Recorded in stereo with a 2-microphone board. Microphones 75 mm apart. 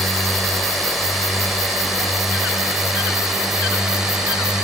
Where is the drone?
Centre (ahead or behind); by 4.6 s 5° right (ahead or behind).